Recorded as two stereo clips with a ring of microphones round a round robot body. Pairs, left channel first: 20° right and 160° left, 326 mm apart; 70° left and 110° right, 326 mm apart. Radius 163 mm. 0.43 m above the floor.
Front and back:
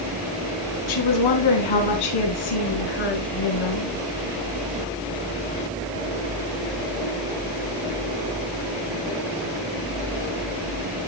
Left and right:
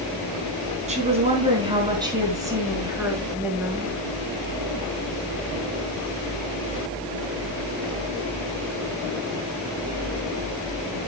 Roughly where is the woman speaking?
Ahead right.